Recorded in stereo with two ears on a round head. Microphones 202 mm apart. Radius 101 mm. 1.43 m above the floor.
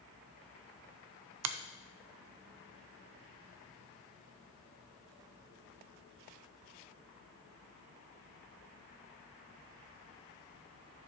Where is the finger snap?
80° right, 0.6 m.